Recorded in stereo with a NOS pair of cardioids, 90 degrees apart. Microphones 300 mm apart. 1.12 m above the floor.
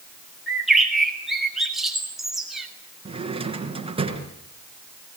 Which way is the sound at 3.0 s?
20° right.